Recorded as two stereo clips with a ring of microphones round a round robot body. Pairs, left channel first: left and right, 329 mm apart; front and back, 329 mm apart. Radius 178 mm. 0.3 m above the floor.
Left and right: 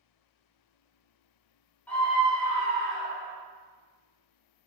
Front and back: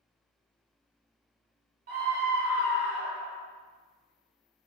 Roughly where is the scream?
Behind.